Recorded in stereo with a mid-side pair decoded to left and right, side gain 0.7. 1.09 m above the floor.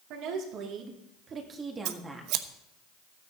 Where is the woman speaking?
65° right, 3 m; by 2.3 s 5° right, 2 m.